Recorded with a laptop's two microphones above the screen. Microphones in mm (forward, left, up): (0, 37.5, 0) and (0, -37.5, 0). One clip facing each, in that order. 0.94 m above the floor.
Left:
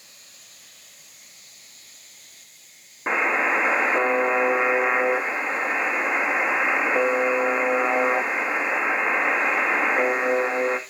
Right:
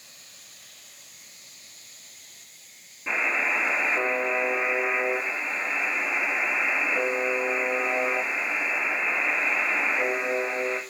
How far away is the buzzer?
About 1.8 m.